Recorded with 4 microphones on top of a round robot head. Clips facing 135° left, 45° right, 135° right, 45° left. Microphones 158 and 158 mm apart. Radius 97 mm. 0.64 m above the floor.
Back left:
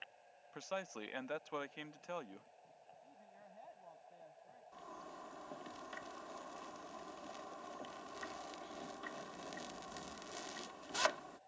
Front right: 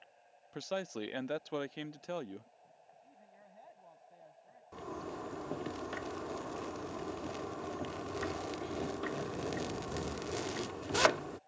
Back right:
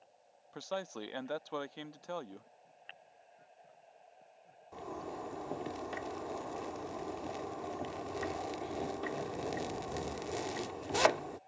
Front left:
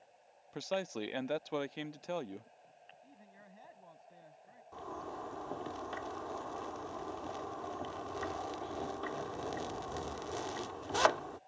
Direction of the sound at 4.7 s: 55° right.